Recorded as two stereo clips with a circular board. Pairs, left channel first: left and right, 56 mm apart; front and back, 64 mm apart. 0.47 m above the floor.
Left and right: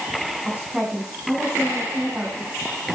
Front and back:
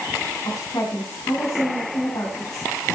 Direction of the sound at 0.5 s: 15° right.